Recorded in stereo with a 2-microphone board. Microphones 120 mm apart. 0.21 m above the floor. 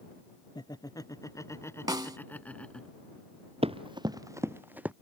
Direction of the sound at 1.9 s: 35° right (ahead or behind).